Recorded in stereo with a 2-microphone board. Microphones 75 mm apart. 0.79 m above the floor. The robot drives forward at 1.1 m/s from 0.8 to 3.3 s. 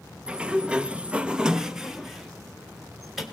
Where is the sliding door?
10° right (ahead or behind), 0.5 m; by 3.2 s 5° right (ahead or behind), 2.5 m.